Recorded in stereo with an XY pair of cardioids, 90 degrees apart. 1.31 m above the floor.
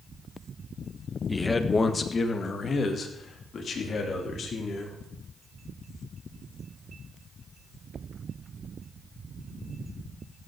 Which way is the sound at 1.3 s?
20° left.